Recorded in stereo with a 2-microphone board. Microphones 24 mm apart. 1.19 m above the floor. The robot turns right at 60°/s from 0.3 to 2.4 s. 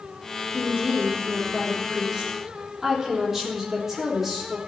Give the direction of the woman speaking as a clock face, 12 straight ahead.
4 o'clock.